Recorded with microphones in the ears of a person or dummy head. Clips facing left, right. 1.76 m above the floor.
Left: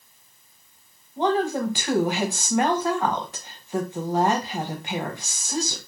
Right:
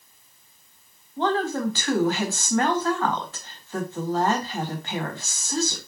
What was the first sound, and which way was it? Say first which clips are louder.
A woman speaking: left 2 dB; 15° left (ahead or behind).